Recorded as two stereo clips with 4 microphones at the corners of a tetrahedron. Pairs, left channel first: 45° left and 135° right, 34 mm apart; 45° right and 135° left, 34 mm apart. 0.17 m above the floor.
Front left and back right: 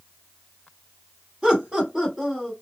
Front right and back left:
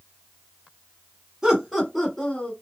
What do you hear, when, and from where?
1.4 s laughter: 160° right, 1.4 m; by 2.5 s 75° right, 1.4 m